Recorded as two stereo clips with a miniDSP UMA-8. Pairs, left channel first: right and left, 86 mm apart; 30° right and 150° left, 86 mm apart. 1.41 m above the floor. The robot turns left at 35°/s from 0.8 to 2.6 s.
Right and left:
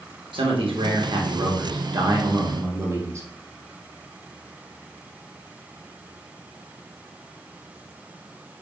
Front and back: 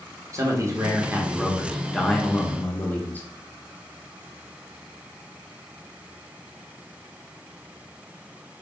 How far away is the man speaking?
About 1.1 m.